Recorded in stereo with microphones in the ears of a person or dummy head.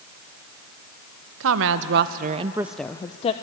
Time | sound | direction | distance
1.4 | a woman speaking | 70° right (ahead or behind) | 1.1 m